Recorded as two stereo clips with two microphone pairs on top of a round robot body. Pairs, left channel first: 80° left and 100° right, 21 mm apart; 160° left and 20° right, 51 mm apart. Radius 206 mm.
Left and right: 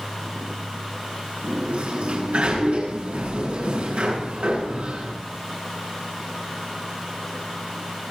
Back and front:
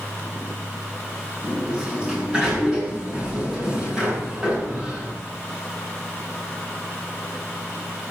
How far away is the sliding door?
About 8.5 m.